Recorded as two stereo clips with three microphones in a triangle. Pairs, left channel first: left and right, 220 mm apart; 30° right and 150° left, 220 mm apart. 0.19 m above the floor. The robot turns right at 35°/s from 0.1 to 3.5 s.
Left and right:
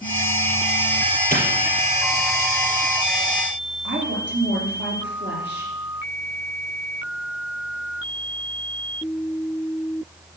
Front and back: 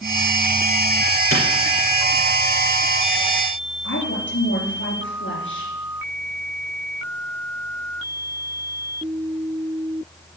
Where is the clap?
145° left, 3.5 m.